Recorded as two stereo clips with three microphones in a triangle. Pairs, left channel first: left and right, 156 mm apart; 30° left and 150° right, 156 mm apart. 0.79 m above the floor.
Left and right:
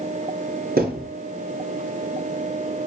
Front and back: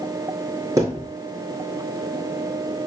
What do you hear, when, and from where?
0.8 s a thud: 80° right, 5.5 m